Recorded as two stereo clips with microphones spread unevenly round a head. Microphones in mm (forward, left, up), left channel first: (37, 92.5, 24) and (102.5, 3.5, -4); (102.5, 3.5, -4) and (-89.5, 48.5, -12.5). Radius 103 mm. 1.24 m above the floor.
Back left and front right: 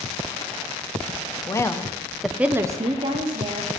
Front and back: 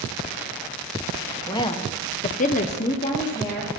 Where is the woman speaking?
60° left, 0.8 m; by 3.7 s 90° right, 1.0 m.